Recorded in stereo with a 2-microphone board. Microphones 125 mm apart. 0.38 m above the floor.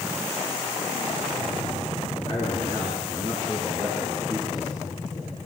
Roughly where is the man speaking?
Left.